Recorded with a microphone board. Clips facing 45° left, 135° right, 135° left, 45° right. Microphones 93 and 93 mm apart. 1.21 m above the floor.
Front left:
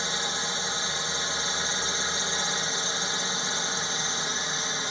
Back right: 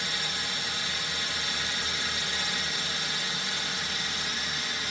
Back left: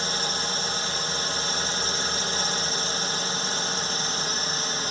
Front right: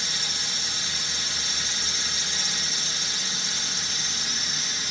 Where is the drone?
105° left.